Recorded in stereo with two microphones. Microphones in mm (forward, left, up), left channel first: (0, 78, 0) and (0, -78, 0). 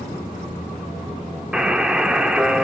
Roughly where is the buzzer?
Centre.